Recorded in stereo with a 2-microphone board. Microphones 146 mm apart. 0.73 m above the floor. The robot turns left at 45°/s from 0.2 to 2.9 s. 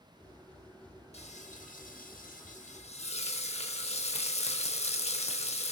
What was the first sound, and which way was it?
Frying, 130° left.